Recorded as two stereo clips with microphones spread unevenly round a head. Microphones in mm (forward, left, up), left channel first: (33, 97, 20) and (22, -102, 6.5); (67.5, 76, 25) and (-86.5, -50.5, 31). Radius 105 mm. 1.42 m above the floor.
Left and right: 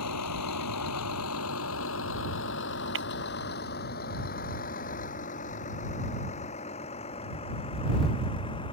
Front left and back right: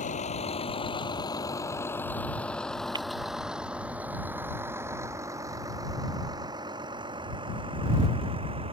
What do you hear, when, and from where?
0.0 s a vehicle: 95° left; by 8.7 s 155° left
3.0 s breaking glass: 70° right